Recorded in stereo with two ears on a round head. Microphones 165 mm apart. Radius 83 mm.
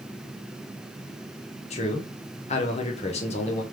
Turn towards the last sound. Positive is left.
turn(degrees=40)  # may be behind; listen again after turning